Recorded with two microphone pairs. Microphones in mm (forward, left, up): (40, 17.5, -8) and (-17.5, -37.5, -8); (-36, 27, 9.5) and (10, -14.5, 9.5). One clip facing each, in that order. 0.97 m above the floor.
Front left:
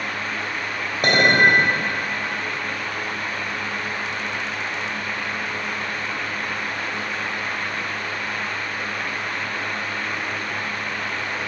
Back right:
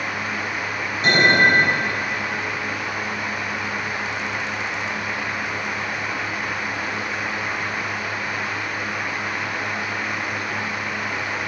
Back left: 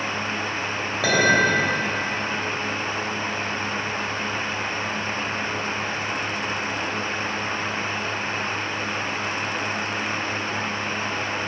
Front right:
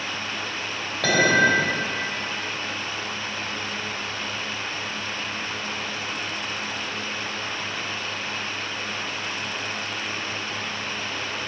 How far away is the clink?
About 3 m.